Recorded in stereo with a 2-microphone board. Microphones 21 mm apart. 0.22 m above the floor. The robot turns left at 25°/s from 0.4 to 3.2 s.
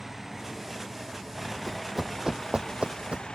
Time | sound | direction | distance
0.0 | a vehicle | 160° right | ?
1.7 | running footsteps | 10° left (ahead or behind) | ?